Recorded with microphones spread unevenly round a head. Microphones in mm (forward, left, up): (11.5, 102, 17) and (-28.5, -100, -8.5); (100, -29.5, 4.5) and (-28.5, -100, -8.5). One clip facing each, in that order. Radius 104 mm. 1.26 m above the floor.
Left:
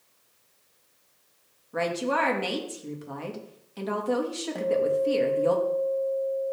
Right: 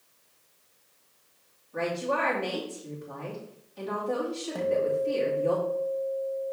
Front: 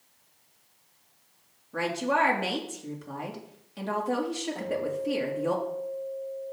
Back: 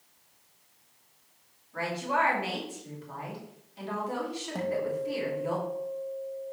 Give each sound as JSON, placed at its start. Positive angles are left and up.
{"t": 1.7, "sound": "a woman speaking", "azimuth_deg": 60, "distance_m": 2.0}
{"t": 4.5, "sound": "a guitar", "azimuth_deg": 170, "distance_m": 1.1}